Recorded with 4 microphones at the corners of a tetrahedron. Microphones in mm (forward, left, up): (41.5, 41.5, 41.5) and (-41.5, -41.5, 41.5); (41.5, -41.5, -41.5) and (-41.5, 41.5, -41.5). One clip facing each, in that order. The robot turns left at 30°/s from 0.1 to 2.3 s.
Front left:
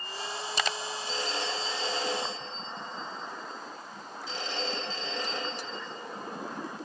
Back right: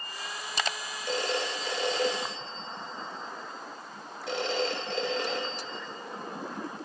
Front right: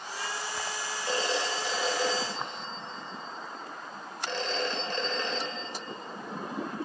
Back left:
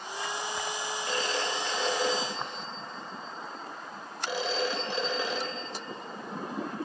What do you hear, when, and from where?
1.1 s a phone ringing: 105° right, 3.5 m; by 5.8 s 145° right, 3.5 m